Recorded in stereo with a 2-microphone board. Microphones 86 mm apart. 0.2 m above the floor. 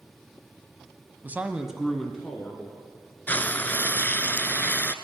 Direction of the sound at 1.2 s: 20° right (ahead or behind).